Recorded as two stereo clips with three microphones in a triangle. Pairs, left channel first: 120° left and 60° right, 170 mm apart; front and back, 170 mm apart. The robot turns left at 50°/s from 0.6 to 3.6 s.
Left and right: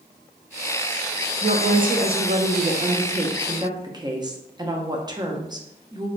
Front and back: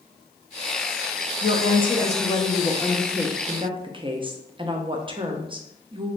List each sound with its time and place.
1.4 s a woman speaking: 10° right, 0.5 m; by 6.1 s 120° right, 0.5 m